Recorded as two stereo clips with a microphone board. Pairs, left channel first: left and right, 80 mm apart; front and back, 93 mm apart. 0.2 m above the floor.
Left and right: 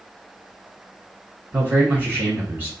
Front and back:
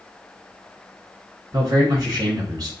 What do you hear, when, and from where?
1.5 s a man speaking: 150° right, 2.0 m